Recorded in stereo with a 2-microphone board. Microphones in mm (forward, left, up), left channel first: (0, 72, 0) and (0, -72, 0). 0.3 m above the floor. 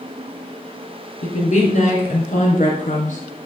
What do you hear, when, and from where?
1.2 s a woman speaking: 60° left (ahead or behind), 2.5 m